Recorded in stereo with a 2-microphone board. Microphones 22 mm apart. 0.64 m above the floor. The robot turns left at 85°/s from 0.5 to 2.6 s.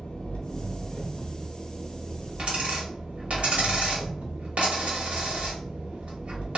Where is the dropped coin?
40° right (ahead or behind), 0.8 m; by 6.6 s 60° right (ahead or behind), 0.8 m.